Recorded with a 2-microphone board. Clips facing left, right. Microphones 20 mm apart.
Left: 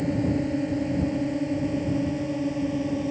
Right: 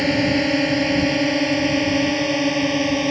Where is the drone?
75° right (ahead or behind); by 3.1 s 60° right (ahead or behind).